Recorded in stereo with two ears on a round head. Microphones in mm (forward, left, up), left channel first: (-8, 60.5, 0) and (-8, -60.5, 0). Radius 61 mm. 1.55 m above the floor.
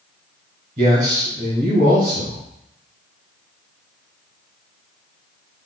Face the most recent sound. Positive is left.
turn(degrees=-45)  # may be behind; listen again after turning